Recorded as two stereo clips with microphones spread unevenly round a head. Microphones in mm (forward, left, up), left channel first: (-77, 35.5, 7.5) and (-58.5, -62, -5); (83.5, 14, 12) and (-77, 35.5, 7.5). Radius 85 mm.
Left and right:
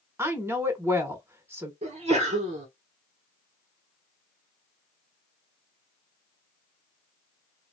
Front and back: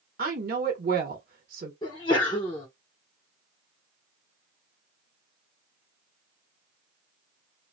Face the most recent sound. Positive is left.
turn(degrees=-70)